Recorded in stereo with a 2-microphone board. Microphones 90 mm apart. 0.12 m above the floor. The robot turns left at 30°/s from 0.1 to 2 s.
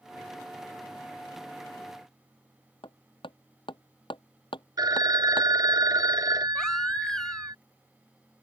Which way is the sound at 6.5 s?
5° left (ahead or behind).